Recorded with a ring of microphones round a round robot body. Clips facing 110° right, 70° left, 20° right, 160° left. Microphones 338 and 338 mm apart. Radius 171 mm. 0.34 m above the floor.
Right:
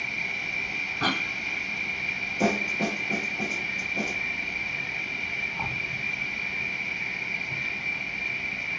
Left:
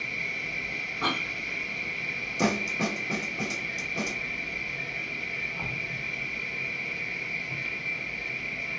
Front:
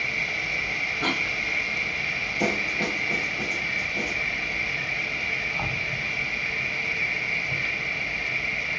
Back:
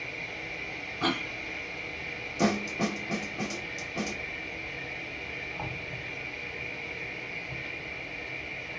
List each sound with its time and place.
0.0 s an insect: 30° right, 0.8 m
1.0 s a cough: 145° right, 2 m
2.4 s a snare drum: 115° left, 0.9 m